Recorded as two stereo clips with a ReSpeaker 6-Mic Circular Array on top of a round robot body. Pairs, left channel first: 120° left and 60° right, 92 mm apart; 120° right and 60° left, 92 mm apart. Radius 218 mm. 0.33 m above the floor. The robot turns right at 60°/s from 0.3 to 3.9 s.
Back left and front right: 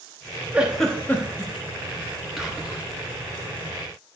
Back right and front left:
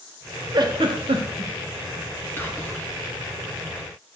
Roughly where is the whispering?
Behind right.